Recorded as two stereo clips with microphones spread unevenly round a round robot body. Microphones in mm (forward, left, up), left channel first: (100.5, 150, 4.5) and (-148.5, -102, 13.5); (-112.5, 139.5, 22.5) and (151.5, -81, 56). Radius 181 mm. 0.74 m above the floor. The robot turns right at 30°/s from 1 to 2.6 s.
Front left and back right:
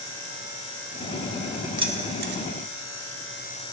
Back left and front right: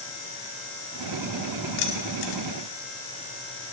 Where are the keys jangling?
145° left, 1.4 m; by 2.4 s 165° left, 1.4 m.